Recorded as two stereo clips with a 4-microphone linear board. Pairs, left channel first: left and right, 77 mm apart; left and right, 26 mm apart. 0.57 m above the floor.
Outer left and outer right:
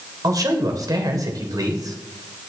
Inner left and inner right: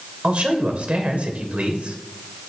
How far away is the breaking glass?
No breaking glass in this recording.